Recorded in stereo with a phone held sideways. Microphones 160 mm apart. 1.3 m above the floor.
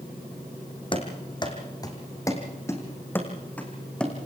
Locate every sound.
0.9 s running footsteps: 30° left (ahead or behind), 3 m; by 4.2 s 5° left (ahead or behind), 3.5 m